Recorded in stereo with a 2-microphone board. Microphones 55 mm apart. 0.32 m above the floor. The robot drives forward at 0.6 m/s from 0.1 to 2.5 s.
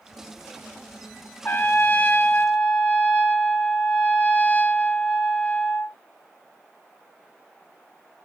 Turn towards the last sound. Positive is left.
turn(degrees=25)  # may be behind; listen again after turning